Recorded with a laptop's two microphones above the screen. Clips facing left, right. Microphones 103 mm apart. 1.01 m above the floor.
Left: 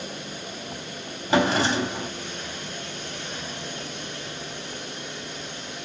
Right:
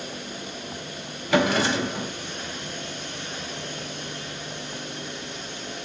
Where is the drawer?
30° left (ahead or behind), 1.7 m.